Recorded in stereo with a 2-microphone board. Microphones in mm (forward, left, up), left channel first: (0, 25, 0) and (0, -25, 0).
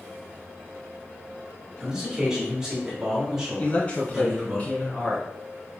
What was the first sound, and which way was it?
A man speaking, 15° right (ahead or behind).